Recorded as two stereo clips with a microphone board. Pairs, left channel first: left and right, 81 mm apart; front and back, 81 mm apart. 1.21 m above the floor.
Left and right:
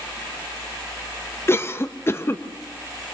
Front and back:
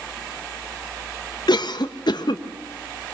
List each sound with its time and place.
1.5 s a cough: 30° left, 1.0 m